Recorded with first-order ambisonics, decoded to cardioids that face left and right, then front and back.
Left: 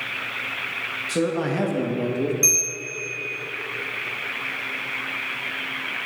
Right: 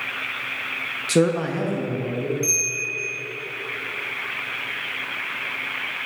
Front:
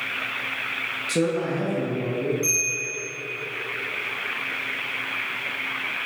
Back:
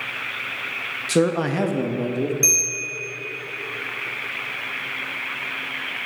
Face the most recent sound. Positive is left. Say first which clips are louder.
# left 1 dB, back 4 dB
turn(degrees=140)